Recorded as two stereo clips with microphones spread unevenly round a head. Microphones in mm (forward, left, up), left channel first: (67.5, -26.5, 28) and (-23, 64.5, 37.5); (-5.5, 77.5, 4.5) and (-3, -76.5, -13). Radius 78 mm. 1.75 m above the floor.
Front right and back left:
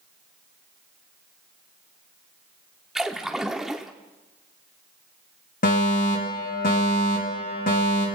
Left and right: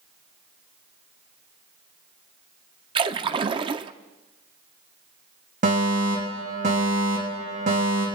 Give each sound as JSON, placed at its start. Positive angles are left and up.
{"t": 3.0, "sound": "a splash", "azimuth_deg": -140, "distance_m": 0.5}
{"t": 5.6, "sound": "a fire alarm", "azimuth_deg": -45, "distance_m": 5.0}